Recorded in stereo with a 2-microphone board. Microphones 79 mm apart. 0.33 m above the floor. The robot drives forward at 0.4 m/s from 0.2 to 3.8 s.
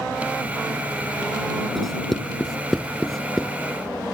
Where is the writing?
5° left (ahead or behind).